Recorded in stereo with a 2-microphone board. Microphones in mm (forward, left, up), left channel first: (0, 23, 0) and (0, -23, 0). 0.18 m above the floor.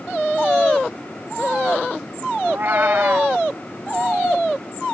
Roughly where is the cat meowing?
Right.